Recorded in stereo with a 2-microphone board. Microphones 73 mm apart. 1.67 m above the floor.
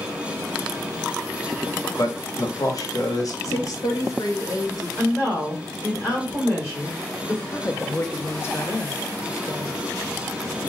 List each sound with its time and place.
2.0 s a man speaking: 50° left (ahead or behind), 0.8 m
3.4 s a woman speaking: 50° left (ahead or behind), 0.7 m
5.0 s a woman speaking: 35° left (ahead or behind), 1.8 m
7.5 s a woman speaking: 35° left (ahead or behind), 0.6 m